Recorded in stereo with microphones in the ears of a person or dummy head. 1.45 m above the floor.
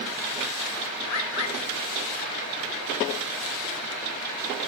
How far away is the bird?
About 1.5 m.